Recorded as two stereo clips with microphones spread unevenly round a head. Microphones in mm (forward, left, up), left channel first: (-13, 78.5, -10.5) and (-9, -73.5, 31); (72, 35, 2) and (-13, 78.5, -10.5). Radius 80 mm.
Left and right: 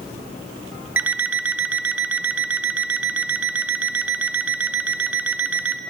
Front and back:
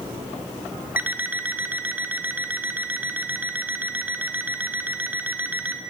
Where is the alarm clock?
130° right, 0.5 m.